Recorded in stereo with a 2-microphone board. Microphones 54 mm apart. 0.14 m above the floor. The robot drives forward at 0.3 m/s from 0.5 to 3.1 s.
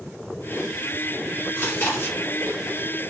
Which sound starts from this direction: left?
Chewing, at 1.6 s.